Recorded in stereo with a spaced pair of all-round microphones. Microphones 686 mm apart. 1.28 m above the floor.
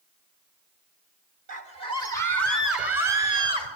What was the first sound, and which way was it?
A scream, 75° right (ahead or behind).